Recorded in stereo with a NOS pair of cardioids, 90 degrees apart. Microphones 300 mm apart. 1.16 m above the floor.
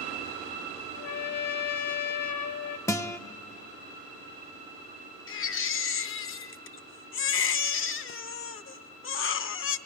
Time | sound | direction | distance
0.9 | a trumpet | 60° left | 1.3 m
2.9 | a guitar | 10° left | 0.6 m
5.3 | a baby crying | 45° left | 0.7 m